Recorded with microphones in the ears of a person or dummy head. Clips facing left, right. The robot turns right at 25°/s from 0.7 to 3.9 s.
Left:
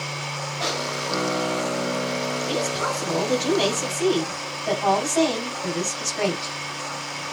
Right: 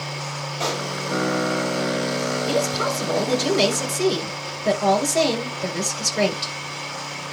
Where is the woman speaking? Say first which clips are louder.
Right 3 dB; 105° right, 7.5 m; by 6.5 s 70° right, 7.5 m.